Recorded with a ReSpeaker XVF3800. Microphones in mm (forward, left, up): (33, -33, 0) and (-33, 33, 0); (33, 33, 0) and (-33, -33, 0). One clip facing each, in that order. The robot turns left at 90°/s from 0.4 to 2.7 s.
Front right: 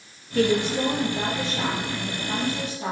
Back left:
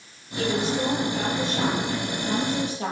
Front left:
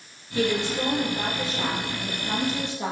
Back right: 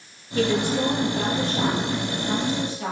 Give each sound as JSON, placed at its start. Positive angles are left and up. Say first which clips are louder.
{"t": 0.3, "sound": "a woman speaking", "louder": "front right 3 dB, back right 3 dB", "azimuth_deg": -40, "distance_m": 4.0}